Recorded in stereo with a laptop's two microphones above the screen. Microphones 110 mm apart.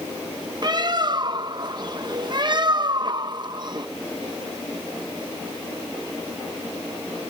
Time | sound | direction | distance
0.6 | a bird | 40° right (ahead or behind) | ?